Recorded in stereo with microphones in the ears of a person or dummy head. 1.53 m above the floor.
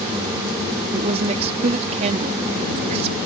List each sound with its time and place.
0.9 s a woman speaking: 30° right (ahead or behind)